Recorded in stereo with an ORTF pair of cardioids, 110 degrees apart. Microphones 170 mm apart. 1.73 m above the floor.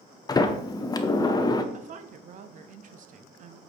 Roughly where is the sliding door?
Ahead.